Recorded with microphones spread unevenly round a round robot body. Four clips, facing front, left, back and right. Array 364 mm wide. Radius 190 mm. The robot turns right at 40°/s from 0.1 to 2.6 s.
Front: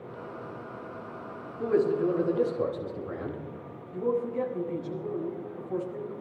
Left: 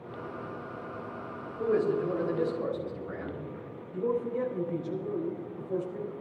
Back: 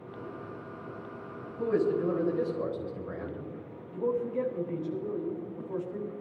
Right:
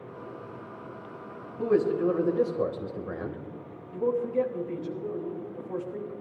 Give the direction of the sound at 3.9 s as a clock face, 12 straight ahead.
3 o'clock.